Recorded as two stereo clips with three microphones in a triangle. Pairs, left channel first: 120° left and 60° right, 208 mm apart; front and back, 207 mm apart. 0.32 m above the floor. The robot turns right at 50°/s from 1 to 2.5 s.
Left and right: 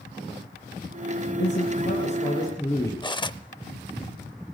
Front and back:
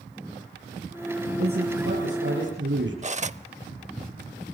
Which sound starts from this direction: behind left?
A man speaking, at 1.4 s.